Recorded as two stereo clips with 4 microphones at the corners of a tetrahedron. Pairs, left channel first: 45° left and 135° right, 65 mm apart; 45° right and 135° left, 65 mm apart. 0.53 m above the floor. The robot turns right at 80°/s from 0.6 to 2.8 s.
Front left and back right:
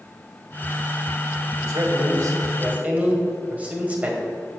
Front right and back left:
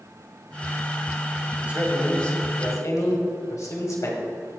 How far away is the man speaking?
About 2.5 m.